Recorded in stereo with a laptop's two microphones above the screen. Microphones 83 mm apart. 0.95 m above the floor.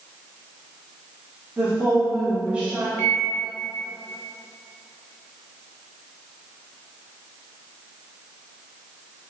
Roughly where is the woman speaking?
Centre.